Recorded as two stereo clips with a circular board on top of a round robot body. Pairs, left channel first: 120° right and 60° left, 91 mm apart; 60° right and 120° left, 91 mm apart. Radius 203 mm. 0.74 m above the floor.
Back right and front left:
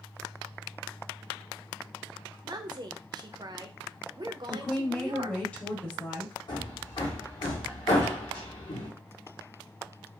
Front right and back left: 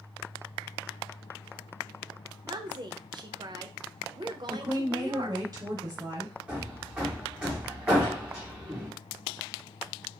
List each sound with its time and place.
2.4 s a woman speaking: 90° left, 0.6 m
4.5 s a woman speaking: 170° left, 1.0 m
6.5 s hammering: 160° right, 0.8 m